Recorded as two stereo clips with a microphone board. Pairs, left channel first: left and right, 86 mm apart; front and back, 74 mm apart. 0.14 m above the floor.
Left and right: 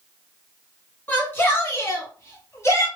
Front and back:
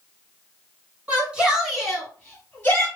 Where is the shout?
135° left, 1.5 m; by 2.9 s 50° left, 1.7 m.